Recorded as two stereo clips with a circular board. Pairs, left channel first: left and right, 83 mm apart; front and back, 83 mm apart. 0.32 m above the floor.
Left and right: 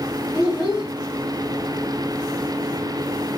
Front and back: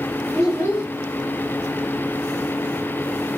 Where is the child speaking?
45° left, 1.9 m.